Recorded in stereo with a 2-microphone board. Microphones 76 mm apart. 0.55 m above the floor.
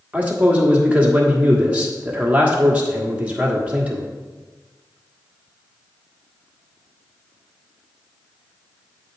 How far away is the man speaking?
About 1.4 m.